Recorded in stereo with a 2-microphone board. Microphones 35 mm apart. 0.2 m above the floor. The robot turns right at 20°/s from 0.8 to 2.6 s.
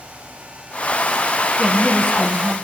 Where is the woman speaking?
20° right (ahead or behind), 1.9 m; by 2.5 s 5° right (ahead or behind), 1.9 m.